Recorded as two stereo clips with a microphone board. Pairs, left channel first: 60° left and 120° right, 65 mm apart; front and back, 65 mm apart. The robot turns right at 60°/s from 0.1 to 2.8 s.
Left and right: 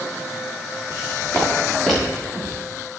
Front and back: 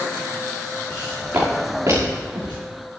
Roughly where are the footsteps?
Left.